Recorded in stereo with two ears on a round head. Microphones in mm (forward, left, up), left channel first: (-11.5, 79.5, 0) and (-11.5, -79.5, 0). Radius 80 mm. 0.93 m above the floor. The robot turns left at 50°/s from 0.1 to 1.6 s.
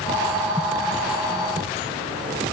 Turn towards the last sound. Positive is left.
No sound to turn to.